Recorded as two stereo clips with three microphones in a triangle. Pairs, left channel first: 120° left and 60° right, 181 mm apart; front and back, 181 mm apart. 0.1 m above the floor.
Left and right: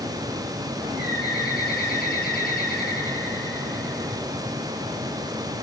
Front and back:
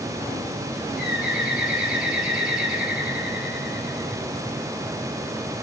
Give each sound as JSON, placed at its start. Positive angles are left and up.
{"t": 1.0, "sound": "a bird", "azimuth_deg": 95, "distance_m": 4.0}